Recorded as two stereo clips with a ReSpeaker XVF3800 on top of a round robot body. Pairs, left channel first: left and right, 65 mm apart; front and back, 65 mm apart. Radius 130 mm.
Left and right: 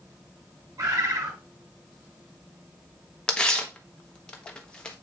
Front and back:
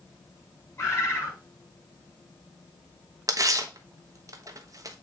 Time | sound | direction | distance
0.8 | a bird | 50° right | 5.5 m
3.3 | tearing paper | 165° left | 1.2 m